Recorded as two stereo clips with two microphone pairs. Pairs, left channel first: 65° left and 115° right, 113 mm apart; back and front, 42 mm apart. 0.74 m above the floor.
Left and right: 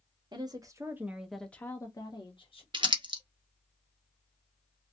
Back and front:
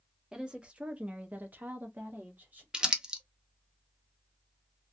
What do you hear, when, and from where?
0.3 s a woman speaking: 70° right, 0.9 m; by 2.6 s 40° left, 1.0 m
2.7 s crumpling: 75° right, 0.6 m